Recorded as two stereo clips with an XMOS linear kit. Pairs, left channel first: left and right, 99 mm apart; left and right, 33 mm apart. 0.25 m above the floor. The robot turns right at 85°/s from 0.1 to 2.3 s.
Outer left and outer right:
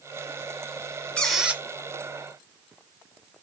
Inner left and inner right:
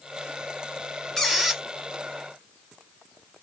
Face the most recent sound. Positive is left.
turn(degrees=-95)